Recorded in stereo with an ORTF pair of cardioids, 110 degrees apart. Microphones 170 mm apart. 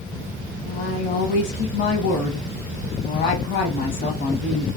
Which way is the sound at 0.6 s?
65° left.